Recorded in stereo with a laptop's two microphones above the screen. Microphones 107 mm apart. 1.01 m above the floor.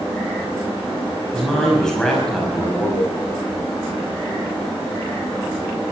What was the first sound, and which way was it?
A man speaking, 5° left (ahead or behind).